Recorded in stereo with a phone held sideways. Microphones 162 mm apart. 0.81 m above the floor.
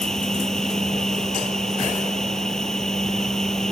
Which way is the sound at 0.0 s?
5° left (ahead or behind).